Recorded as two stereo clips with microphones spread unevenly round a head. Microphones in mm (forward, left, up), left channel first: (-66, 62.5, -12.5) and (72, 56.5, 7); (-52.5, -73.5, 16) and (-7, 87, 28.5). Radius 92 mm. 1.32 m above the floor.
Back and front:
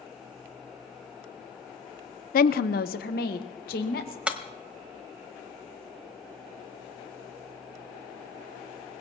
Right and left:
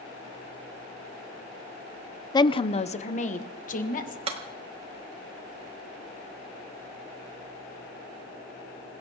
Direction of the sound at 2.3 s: 170° right.